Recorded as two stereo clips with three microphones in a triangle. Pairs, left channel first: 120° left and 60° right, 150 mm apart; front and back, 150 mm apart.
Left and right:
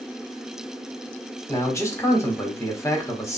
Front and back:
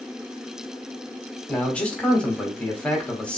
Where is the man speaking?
75° left, 1.5 m.